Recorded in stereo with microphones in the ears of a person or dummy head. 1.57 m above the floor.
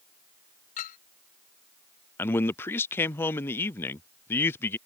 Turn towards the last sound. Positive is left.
turn(degrees=10)  # may be behind; listen again after turning